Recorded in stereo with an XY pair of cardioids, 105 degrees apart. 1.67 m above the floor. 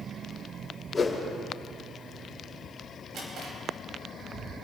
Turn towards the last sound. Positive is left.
turn(degrees=-65)